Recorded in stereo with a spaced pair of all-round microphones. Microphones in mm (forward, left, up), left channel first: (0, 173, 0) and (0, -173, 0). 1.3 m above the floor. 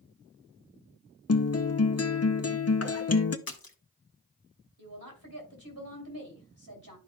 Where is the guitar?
45° left (ahead or behind), 0.6 m.